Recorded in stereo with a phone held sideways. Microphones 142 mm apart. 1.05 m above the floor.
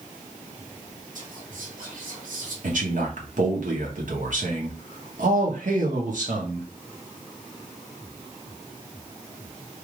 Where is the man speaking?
65° right (ahead or behind), 1.4 m.